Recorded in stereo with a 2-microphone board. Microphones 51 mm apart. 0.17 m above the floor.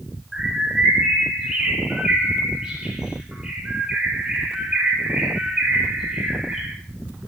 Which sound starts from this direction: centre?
A bird, at 0.3 s.